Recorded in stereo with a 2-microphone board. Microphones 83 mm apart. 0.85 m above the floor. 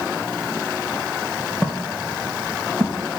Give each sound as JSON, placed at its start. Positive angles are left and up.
{"t": 1.6, "sound": "footsteps", "side_deg": 5, "distance_m": 2.5}